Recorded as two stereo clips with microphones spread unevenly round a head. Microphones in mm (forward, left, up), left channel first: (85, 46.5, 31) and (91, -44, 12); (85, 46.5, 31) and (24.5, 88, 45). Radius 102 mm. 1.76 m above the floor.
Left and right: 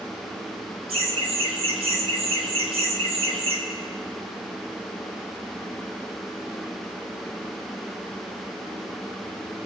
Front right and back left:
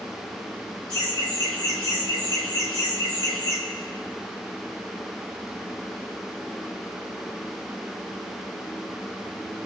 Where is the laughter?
85° right, 1.5 m.